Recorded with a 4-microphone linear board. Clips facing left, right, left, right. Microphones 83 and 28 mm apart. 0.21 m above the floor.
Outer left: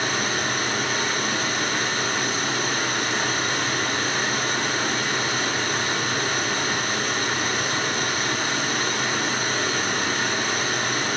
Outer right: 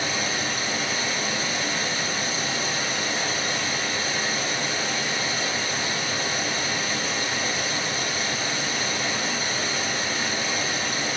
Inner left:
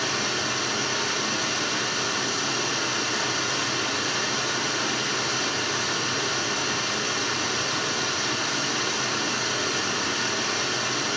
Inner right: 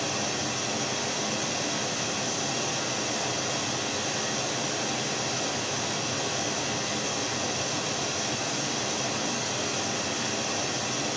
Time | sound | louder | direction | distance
0.0 | running water | outer left 3 dB, inner left 4 dB | 60° left (ahead or behind) | 2.5 m